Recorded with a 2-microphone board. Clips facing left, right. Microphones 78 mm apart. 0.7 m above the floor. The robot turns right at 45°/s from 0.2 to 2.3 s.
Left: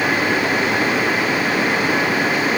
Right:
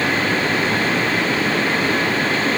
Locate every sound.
Only background noise.